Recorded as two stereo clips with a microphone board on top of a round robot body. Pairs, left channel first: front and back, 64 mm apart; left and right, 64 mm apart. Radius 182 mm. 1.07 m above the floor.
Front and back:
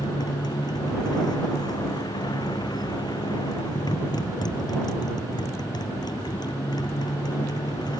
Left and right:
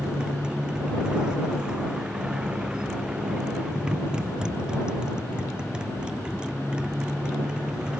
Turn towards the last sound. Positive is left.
turn(degrees=-10)